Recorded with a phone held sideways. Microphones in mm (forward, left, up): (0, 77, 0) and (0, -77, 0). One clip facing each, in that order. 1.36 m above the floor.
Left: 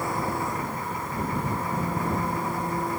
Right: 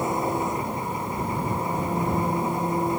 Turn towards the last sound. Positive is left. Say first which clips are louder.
# right 3 dB
turn(degrees=-20)  # may be behind; listen again after turning